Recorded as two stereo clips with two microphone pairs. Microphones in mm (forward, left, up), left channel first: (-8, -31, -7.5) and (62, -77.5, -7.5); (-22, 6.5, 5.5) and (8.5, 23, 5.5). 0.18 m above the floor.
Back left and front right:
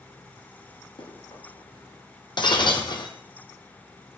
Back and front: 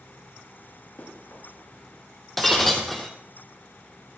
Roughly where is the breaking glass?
Behind left.